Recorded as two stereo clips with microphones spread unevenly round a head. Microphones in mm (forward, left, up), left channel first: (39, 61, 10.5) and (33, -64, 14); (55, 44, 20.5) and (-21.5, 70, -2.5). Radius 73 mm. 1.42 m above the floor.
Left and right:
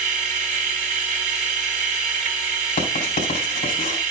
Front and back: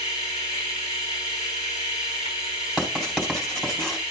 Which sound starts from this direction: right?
A machine running, at 0.0 s.